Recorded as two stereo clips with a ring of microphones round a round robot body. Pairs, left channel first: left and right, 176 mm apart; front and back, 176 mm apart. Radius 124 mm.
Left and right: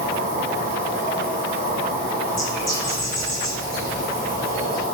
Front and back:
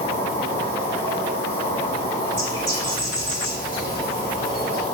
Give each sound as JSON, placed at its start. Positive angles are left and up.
{"t": 0.0, "sound": "an insect", "azimuth_deg": -50, "distance_m": 2.5}
{"t": 2.2, "sound": "a bird", "azimuth_deg": -135, "distance_m": 2.0}